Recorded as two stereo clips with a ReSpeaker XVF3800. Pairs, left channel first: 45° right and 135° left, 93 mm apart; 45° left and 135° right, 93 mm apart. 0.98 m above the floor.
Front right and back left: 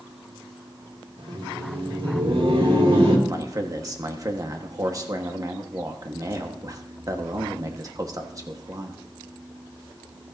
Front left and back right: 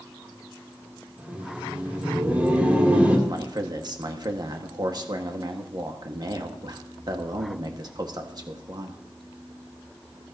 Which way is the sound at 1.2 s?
150° left.